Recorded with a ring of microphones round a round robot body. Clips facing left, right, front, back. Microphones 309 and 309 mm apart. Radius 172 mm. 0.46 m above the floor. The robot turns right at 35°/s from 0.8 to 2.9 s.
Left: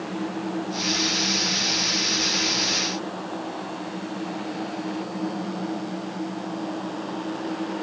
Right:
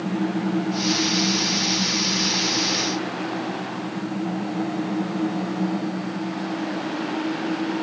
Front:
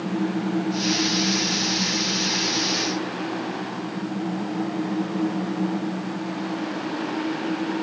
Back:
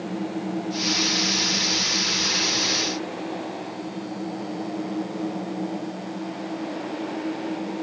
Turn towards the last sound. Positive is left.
No sound to turn to.